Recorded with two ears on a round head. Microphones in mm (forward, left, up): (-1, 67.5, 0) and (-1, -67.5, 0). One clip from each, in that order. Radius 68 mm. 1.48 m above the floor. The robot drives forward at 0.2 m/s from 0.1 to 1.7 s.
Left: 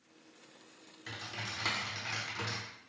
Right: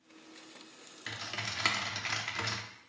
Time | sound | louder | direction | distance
1.1 | typing on a keyboard | right 3 dB | 50° right (ahead or behind) | 0.6 m